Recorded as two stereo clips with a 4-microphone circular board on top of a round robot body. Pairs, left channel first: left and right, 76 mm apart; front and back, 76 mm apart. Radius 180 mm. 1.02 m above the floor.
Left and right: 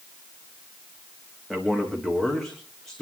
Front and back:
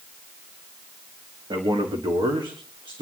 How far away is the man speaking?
About 2.5 m.